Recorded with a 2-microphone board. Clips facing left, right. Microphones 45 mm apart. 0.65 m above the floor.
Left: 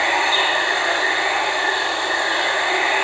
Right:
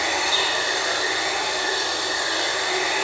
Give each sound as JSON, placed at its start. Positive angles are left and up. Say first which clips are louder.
{"t": 0.0, "sound": "running water", "louder": "left 5 dB", "side_deg": 25, "distance_m": 1.4}